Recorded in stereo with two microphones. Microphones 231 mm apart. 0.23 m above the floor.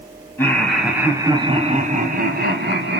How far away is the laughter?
About 1.9 m.